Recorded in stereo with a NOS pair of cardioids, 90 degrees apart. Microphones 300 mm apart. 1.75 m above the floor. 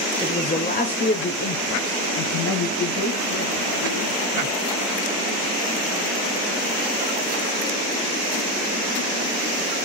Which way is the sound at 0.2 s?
10° left.